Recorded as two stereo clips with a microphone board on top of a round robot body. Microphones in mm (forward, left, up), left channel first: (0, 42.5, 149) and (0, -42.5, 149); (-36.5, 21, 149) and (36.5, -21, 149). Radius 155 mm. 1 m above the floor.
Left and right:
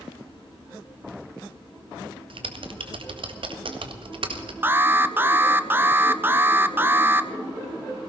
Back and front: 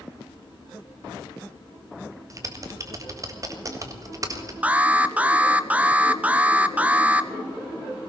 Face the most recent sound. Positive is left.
turn(degrees=-75)